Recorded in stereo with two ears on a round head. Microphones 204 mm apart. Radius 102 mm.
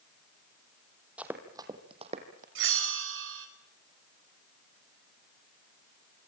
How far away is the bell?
About 5 m.